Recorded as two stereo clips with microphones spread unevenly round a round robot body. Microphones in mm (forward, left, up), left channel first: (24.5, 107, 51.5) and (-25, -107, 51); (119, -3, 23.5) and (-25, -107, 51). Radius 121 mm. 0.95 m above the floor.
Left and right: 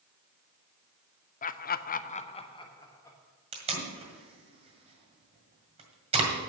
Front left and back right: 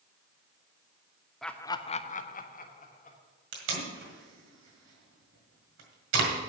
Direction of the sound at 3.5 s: 170° right.